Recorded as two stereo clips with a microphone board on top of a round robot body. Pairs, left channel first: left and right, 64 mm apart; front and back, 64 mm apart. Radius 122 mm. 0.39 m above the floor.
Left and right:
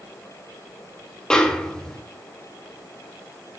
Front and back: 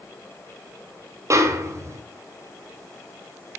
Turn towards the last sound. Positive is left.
turn(degrees=165)